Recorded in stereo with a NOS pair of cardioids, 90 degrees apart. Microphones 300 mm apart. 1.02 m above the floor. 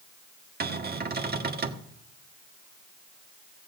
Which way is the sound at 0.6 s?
30° right.